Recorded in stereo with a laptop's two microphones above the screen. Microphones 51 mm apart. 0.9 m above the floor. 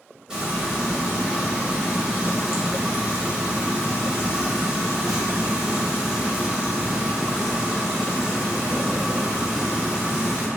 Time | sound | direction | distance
0.3 | frying | 15° right (ahead or behind) | 1.3 m